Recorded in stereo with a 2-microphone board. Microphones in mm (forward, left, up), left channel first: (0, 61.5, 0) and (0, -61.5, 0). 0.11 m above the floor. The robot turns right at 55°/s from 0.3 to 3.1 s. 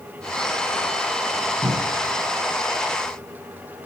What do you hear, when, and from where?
1.6 s a cupboard door: 50° right (ahead or behind), 2.5 m; by 2.1 s 45° right (ahead or behind), 2.5 m